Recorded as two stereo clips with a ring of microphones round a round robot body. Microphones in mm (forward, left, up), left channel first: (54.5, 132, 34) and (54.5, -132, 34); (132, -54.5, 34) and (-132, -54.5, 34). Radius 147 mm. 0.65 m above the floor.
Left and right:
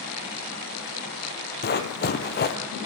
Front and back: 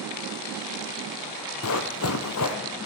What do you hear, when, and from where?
1.6 s running footsteps: 40° left, 1.1 m